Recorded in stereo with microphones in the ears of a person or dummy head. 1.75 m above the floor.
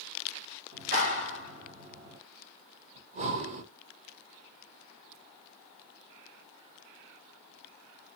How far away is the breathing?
About 1.2 m.